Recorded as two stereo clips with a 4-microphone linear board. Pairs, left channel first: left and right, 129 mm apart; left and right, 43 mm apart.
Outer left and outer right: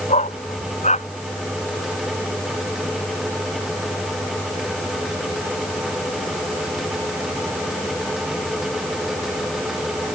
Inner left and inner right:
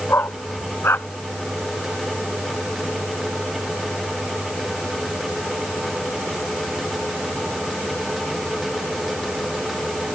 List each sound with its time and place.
0.1 s a dog barking: 65° left (ahead or behind)